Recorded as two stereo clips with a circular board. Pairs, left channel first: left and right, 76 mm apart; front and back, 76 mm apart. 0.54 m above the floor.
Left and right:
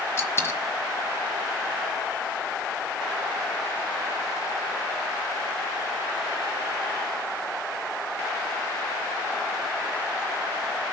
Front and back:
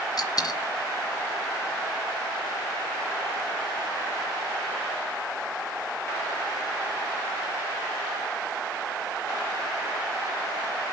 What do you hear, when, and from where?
0.2 s a dropped coin: 35° left, 1.7 m